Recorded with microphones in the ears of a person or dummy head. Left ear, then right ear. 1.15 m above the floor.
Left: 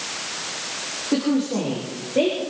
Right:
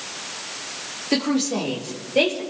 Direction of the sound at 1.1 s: 75° right (ahead or behind).